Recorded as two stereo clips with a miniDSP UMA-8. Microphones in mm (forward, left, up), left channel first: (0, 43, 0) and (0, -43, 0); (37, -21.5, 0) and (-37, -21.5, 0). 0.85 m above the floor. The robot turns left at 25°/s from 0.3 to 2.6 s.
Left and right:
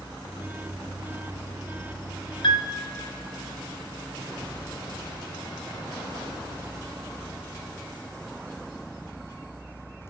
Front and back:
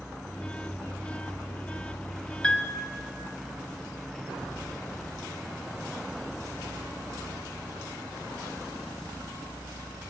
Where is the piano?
75° left, 1.6 m; by 2.7 s 70° left, 1.6 m.